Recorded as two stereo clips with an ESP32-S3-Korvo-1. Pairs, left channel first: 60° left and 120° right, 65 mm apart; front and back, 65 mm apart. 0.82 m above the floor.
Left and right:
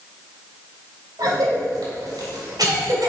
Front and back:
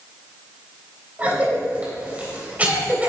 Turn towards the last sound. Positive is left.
turn(degrees=-115)